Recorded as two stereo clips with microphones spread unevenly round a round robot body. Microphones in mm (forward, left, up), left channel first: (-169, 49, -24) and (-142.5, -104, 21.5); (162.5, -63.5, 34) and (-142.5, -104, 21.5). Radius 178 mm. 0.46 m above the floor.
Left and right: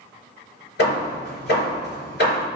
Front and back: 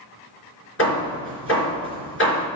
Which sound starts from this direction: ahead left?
Hammering, at 0.8 s.